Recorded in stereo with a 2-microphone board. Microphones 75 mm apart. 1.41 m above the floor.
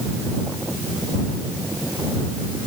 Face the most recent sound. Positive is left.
No sound to turn to.